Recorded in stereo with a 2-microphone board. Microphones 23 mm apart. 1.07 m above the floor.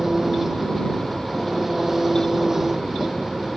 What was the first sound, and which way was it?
An engine running, 20° right (ahead or behind).